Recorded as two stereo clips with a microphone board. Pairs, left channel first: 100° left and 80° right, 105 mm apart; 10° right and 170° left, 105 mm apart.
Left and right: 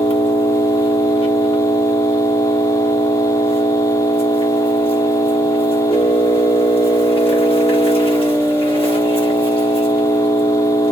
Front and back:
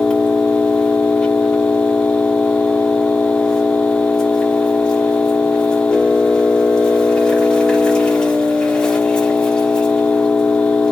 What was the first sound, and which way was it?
An engine running, 70° left.